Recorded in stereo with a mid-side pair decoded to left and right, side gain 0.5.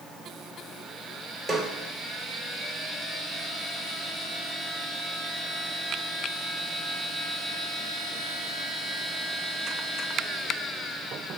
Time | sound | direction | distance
1.5 | a snare drum | 15° right | 3.5 m